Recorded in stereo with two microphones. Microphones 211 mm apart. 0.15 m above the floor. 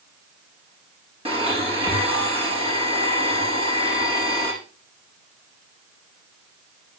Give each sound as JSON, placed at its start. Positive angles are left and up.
{"t": 1.2, "sound": "a blender", "side_deg": -25, "distance_m": 4.5}